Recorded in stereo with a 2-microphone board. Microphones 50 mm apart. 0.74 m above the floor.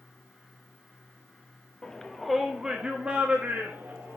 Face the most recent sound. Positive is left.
turn(degrees=-40)  # may be behind; listen again after turning